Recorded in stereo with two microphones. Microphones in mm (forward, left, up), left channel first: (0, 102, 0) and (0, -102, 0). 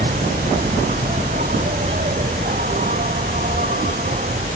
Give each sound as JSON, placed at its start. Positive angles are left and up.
{"t": 0.0, "sound": "an insect", "side_deg": -40}